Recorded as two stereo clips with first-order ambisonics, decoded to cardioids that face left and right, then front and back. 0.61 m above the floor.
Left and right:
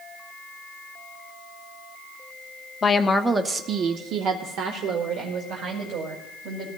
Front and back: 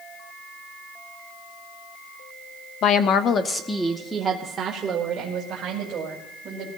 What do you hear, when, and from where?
2.8 s a woman speaking: 25° left, 0.9 m; by 6.7 s 125° right, 3 m